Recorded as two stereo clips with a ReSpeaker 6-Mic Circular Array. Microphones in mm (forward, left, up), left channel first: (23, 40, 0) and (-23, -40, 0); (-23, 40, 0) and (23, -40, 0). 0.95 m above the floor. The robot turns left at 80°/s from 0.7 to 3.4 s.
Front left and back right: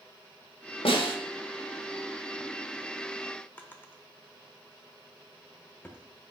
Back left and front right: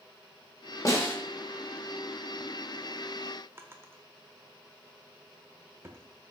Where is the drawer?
5° right, 0.9 m.